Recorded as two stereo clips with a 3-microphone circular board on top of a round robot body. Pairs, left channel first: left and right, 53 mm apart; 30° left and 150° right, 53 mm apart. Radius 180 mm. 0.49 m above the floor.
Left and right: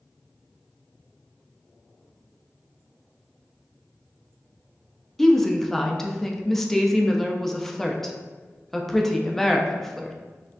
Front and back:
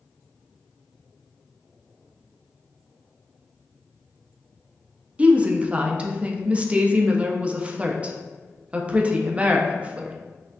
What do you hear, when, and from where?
5.2 s a woman speaking: 170° left, 0.7 m